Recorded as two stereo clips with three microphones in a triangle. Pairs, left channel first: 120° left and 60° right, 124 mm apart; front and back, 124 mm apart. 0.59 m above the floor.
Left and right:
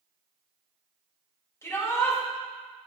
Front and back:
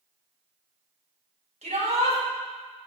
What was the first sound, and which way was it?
A shout, 175° right.